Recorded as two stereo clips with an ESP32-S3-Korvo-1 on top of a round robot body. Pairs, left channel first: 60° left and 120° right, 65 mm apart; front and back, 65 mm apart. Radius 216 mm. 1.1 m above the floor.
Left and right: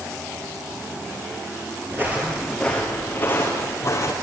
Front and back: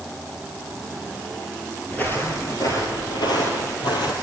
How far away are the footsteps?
About 1.2 m.